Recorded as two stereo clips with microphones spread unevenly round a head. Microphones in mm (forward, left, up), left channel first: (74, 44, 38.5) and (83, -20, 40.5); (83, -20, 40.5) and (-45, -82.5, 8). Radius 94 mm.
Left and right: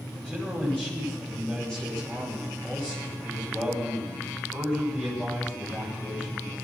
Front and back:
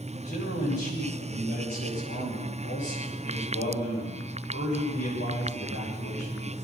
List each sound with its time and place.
0.1 s a man speaking: 20° left, 8 m